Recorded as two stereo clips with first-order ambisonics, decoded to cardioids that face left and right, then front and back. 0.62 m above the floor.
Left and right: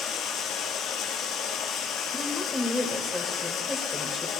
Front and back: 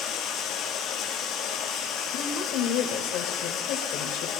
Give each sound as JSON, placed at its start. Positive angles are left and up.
{"t": 0.0, "sound": "running water", "azimuth_deg": 45, "distance_m": 1.4}
{"t": 2.1, "sound": "a woman speaking", "azimuth_deg": 5, "distance_m": 2.5}